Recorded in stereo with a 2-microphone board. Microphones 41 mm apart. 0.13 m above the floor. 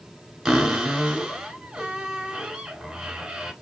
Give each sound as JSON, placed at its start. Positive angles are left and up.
{"t": 0.5, "sound": "a cupboard door", "side_deg": -10, "distance_m": 1.2}